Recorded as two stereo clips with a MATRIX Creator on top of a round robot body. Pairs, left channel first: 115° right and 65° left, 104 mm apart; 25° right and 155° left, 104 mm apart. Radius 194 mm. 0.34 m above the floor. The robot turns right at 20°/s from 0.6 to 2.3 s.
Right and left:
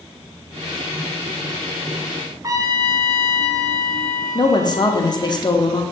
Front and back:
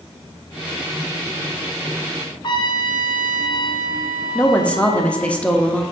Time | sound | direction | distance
2.4 | a trumpet | 15° left | 1.0 m
4.3 | a woman speaking | 95° right | 1.2 m